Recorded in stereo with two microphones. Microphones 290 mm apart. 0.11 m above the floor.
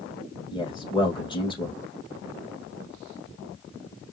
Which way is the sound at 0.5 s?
15° left (ahead or behind).